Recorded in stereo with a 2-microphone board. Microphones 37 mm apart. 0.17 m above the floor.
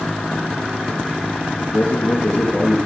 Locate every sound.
1.6 s a man speaking: 40° left (ahead or behind), 3.5 m